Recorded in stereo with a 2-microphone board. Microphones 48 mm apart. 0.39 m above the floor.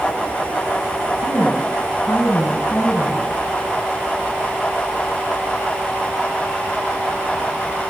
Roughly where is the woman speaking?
Left.